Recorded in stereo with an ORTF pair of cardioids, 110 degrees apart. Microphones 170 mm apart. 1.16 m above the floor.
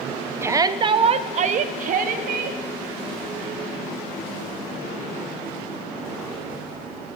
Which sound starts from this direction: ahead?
A shout, at 0.4 s.